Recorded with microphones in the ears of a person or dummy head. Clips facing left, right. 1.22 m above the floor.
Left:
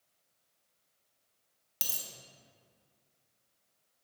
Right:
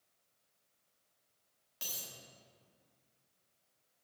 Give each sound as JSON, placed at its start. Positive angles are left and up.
{"t": 1.8, "sound": "a dropped coin", "side_deg": 65, "distance_m": 1.1}